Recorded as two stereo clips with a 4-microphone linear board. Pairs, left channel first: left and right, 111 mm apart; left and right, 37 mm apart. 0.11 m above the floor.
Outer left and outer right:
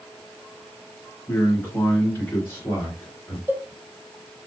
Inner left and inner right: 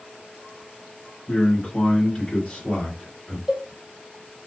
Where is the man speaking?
15° left (ahead or behind), 2.0 m; by 3.4 s 25° left (ahead or behind), 1.8 m.